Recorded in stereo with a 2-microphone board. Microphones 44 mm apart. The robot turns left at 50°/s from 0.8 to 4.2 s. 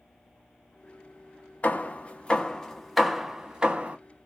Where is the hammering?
40° left (ahead or behind), 0.6 m; by 4.0 s 30° right (ahead or behind), 0.6 m.